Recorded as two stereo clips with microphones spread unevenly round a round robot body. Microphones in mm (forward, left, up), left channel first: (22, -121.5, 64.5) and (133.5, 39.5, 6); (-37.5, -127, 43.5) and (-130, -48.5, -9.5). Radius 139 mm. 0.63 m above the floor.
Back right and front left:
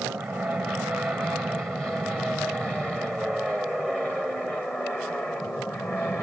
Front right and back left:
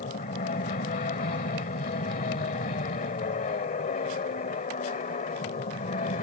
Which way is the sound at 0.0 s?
25° right.